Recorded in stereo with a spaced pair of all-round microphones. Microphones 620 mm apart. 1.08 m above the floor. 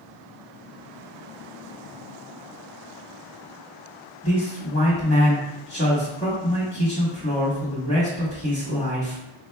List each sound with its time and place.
4.2 s a man speaking: 20° left (ahead or behind), 1.5 m